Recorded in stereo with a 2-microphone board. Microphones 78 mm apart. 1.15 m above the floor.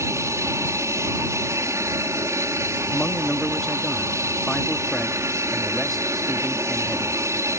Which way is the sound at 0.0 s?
35° right (ahead or behind).